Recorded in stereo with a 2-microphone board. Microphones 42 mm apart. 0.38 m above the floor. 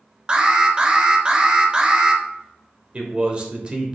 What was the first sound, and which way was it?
An alarm, 25° right (ahead or behind).